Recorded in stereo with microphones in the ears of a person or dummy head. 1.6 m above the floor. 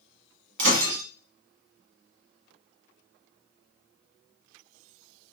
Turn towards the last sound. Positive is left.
turn(degrees=-65)  # may be behind; listen again after turning